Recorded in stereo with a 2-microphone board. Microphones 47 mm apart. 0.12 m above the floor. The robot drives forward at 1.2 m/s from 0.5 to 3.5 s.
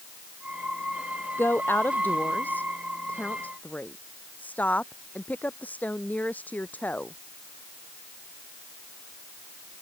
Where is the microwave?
No microwave in this recording.